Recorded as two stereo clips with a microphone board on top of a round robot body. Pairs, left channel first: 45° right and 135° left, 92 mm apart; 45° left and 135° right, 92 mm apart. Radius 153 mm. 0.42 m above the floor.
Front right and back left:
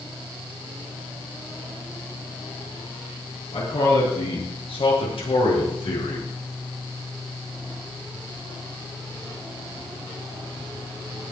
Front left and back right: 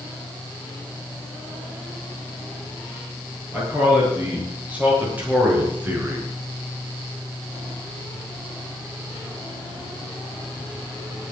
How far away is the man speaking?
About 8.5 m.